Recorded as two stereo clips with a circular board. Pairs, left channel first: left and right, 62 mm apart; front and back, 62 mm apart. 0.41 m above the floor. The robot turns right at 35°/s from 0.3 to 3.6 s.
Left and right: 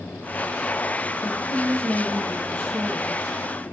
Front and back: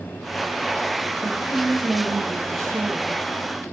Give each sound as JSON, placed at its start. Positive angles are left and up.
{"t": 1.2, "sound": "a woman speaking", "azimuth_deg": 120, "distance_m": 1.4}